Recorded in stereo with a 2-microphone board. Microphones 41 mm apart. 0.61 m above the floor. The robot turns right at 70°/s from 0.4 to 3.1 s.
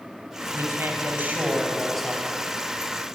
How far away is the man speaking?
About 4.5 m.